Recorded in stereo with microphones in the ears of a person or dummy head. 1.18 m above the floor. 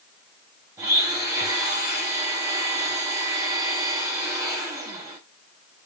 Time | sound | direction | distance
0.8 | a blender | 15° right (ahead or behind) | 0.8 m